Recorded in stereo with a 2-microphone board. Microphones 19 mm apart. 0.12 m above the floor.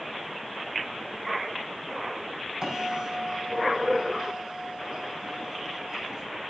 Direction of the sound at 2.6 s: 30° right (ahead or behind).